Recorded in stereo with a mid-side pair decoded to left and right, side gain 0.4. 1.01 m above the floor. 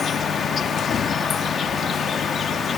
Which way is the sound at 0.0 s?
55° left.